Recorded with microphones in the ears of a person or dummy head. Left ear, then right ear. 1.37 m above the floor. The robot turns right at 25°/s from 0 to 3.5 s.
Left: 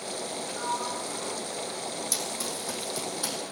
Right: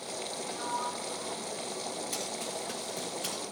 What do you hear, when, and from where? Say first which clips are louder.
0.5 s a sliding door: left 3 dB; 15° left, 3 m; by 2.0 s 55° left, 3 m
2.1 s running footsteps: left 4 dB; 70° left (ahead or behind), 4 m; by 3.4 s 50° left (ahead or behind), 3 m